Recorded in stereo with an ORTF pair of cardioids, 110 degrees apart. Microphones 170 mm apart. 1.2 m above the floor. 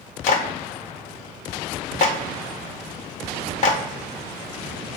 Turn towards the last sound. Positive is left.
turn(degrees=45)